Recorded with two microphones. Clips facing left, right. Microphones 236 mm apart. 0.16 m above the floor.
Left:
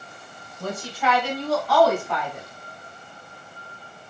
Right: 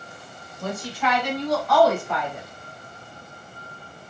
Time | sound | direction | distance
0.6 | a woman speaking | 10° left (ahead or behind) | 1.1 m